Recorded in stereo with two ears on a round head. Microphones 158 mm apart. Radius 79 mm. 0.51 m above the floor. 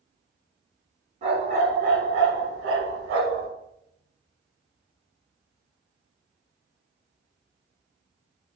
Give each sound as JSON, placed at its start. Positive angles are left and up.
{"t": 1.2, "sound": "a dog barking", "side_deg": -40, "distance_m": 1.3}